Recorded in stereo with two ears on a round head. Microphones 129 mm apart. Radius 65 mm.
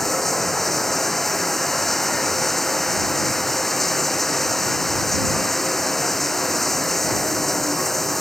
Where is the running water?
Centre (ahead or behind).